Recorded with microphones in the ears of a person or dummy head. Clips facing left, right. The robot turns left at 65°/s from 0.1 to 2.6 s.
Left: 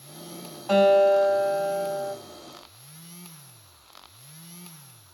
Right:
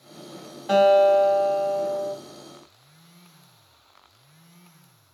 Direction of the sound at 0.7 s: 145° right.